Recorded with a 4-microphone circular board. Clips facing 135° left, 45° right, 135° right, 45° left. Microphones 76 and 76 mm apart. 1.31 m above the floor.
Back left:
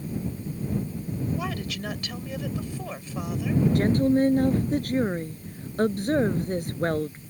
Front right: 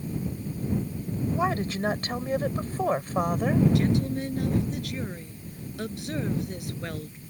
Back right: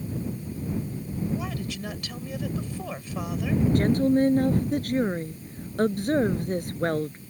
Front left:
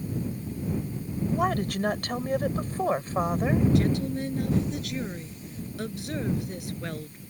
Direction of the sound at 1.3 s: 10° left.